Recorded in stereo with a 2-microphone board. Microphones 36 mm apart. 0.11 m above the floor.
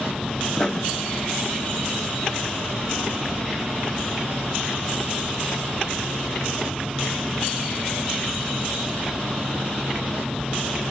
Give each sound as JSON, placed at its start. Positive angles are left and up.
{"t": 0.6, "sound": "writing", "side_deg": 25, "distance_m": 0.5}